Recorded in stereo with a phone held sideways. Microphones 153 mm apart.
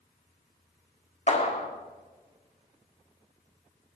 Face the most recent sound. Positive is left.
turn(degrees=40)  # may be behind; listen again after turning